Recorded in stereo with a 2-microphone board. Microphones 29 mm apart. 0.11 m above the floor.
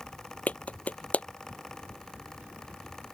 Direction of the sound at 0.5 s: 50° left (ahead or behind).